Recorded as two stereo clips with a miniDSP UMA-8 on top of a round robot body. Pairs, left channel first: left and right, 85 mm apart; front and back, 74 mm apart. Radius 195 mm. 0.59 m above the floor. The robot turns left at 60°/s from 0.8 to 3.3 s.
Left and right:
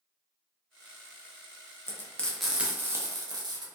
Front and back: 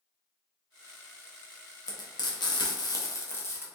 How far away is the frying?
About 0.8 m.